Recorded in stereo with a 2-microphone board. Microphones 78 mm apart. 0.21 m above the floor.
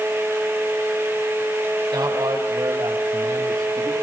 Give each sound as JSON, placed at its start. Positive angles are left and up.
{"t": 1.9, "sound": "a man speaking", "side_deg": -70, "distance_m": 8.5}